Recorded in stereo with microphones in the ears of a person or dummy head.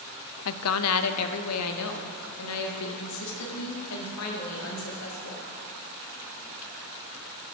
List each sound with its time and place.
0.5 s a woman speaking: 75° left (ahead or behind), 0.6 m; by 5.4 s 85° left, 3 m